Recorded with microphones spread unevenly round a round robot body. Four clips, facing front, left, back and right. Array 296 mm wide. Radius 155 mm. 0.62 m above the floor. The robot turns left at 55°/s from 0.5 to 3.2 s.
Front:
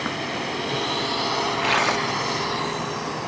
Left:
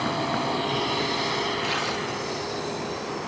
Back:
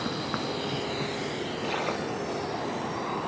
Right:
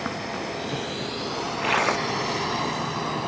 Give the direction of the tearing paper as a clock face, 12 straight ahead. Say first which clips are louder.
Right 4 dB, front 6 dB; 1 o'clock.